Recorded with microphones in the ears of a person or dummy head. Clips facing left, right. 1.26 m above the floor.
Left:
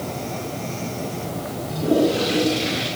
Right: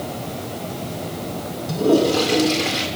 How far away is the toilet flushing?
About 7 m.